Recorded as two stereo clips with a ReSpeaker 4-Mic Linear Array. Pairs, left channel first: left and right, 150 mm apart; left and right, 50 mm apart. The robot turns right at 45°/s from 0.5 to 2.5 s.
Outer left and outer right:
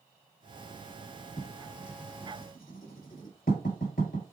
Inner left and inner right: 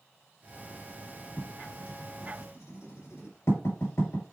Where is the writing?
35° left (ahead or behind), 5 m; by 4.2 s 75° left (ahead or behind), 5 m.